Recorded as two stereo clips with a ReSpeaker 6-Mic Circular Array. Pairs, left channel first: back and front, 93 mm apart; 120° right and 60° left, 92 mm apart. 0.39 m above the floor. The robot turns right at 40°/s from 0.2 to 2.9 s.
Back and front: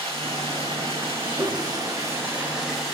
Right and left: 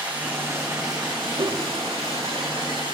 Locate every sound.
0.0 s running water: 15° right, 4.5 m; by 3.0 s 95° left, 4.5 m
1.4 s a whoosh: 55° left, 0.7 m; by 1.6 s 65° left, 0.7 m